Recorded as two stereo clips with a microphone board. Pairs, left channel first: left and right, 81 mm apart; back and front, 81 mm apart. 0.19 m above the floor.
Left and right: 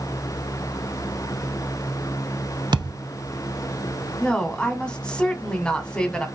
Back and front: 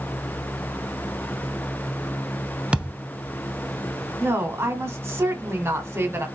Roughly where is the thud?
Right.